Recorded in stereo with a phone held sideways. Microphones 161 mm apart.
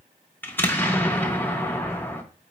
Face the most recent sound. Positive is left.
turn(degrees=10)  # may be behind; listen again after turning